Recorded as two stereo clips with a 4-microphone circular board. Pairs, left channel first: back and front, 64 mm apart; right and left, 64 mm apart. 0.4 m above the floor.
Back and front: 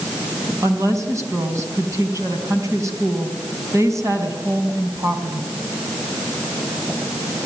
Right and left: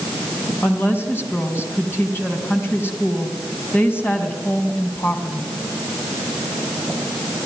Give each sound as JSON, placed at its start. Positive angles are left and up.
{"t": 0.6, "sound": "a woman speaking", "azimuth_deg": -35, "distance_m": 4.0}